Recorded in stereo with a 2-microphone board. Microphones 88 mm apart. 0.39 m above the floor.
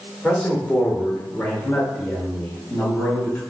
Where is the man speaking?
5° left (ahead or behind), 1.2 m; by 3.4 s 20° left (ahead or behind), 2 m.